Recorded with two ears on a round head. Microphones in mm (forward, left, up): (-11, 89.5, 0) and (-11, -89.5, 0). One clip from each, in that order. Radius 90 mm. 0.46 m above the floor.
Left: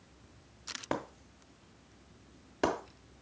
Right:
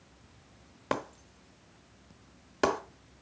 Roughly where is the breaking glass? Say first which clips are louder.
Right 5 dB; right.